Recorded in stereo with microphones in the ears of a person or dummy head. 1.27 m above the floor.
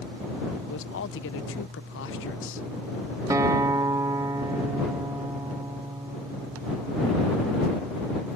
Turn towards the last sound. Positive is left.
turn(degrees=-15)  # may be behind; listen again after turning